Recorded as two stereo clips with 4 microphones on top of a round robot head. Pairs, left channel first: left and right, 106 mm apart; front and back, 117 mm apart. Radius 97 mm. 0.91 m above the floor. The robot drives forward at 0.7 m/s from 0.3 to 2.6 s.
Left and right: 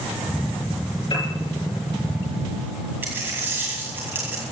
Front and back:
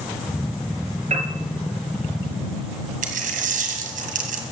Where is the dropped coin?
170° right, 1.9 m.